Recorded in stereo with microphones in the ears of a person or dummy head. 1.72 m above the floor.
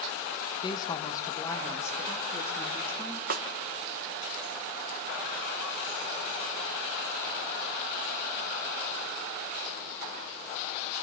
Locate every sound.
0.6 s a woman speaking: 30° left (ahead or behind), 2 m; by 3.2 s 10° left (ahead or behind), 4 m
3.3 s a snare drum: 45° right (ahead or behind), 1.3 m